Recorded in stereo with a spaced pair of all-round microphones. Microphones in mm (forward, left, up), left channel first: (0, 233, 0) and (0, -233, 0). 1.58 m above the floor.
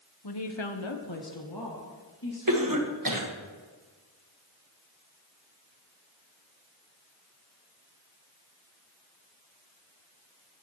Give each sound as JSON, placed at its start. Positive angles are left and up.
{"t": 0.2, "sound": "a woman speaking", "side_deg": 50, "distance_m": 0.9}
{"t": 2.5, "sound": "a cough", "side_deg": -45, "distance_m": 1.5}